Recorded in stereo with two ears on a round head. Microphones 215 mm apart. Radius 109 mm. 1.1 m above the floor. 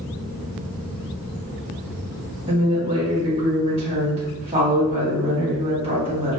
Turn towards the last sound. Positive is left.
turn(degrees=-25)  # may be behind; listen again after turning